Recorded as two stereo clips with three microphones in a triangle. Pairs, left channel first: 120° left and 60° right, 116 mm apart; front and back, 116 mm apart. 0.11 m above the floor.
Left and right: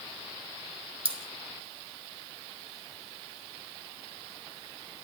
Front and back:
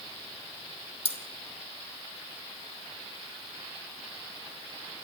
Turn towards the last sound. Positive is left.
turn(degrees=-25)